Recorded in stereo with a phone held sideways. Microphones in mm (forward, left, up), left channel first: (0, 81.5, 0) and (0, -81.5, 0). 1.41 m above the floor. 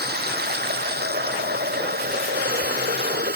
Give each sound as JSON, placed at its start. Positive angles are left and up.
{"t": 0.0, "sound": "running water", "side_deg": -80}